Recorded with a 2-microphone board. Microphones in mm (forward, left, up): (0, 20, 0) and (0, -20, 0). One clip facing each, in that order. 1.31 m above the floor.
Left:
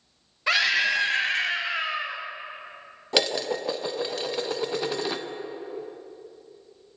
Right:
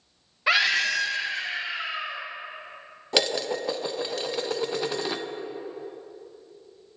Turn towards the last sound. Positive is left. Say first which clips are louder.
# even
turn(degrees=0)  # may be behind; listen again after turning